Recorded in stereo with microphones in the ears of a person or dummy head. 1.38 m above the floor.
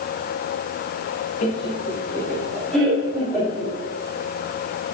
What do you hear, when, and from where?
1.4 s laughter: 35° left (ahead or behind), 0.7 m; by 3.7 s 10° right (ahead or behind), 4 m